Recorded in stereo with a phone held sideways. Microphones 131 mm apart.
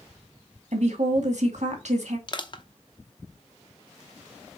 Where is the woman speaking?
65° right (ahead or behind), 2 m.